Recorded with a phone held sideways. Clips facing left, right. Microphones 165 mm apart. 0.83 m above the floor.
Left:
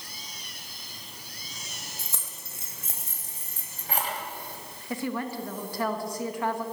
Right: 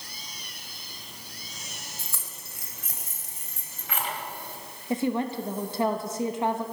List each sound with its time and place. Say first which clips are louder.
2.0 s keys jangling: even; 20° left (ahead or behind), 2 m; by 4.2 s 40° left (ahead or behind), 3 m
4.9 s a woman speaking: right 5 dB; 20° right (ahead or behind), 1.0 m